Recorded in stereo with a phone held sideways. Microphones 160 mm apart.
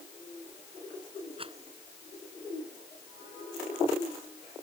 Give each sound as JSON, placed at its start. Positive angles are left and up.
{"t": 1.4, "sound": "a rattle", "side_deg": -35}